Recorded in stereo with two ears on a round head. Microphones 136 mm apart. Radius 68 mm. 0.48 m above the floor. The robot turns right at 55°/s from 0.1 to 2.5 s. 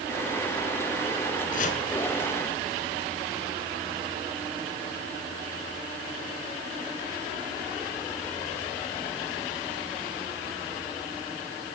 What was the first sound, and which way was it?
Chopping, 65° left (ahead or behind).